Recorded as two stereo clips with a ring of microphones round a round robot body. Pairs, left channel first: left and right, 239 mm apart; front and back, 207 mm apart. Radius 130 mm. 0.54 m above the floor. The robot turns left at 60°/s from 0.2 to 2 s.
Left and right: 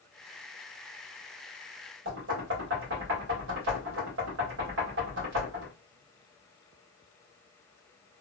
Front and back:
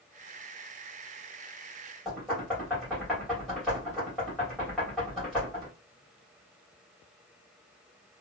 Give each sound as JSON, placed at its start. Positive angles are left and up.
{"t": 2.0, "sound": "knocking", "azimuth_deg": -90, "distance_m": 1.5}